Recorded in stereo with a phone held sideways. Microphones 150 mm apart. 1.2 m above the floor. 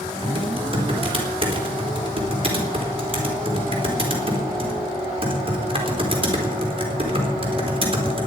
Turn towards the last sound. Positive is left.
turn(degrees=-40)  # may be behind; listen again after turning